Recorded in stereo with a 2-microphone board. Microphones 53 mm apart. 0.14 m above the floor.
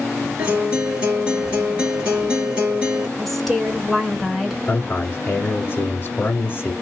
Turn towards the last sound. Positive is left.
turn(degrees=30)  # may be behind; listen again after turning